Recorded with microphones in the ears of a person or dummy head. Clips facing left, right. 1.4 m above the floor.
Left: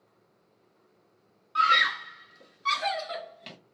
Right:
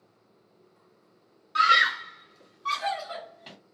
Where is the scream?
20° right (ahead or behind), 0.6 m; by 3.6 s 40° left (ahead or behind), 1.4 m.